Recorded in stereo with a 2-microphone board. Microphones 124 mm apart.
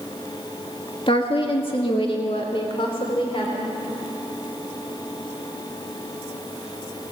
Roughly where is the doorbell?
No doorbell in this recording.